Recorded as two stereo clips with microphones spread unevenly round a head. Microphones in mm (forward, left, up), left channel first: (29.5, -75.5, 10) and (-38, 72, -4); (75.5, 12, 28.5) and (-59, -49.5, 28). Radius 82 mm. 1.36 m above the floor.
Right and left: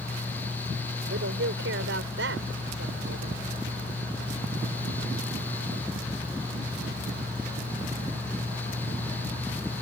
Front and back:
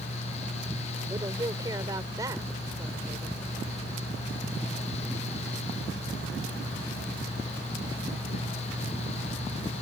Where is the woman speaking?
135° left.